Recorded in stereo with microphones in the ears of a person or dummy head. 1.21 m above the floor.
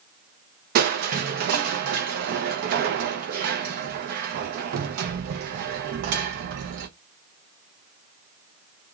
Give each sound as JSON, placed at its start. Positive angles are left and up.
{"t": 0.8, "sound": "crushing", "side_deg": -60, "distance_m": 0.5}